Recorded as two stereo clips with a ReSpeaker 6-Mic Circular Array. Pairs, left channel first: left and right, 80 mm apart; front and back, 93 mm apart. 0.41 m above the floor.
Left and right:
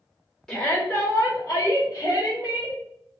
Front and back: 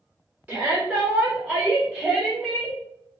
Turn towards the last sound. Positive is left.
turn(degrees=75)